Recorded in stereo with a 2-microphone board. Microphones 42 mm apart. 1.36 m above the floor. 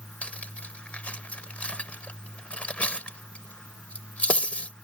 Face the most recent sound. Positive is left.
turn(degrees=30)  # may be behind; listen again after turning